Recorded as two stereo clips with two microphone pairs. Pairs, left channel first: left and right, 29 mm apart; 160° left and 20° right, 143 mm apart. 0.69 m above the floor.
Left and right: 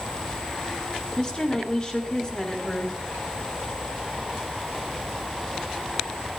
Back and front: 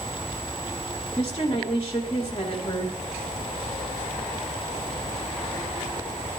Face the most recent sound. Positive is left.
turn(degrees=150)